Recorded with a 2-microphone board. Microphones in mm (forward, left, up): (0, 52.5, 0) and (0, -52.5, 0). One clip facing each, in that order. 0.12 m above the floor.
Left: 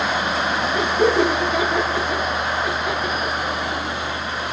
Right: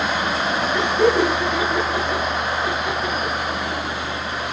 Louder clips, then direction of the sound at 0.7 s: Even; 65° right (ahead or behind).